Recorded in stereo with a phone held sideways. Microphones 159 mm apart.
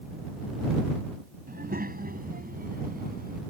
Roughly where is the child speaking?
Right.